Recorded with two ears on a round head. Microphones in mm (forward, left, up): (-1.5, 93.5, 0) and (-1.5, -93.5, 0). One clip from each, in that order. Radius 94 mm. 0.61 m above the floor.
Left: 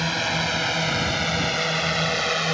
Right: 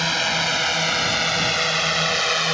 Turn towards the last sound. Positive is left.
turn(degrees=-35)  # may be behind; listen again after turning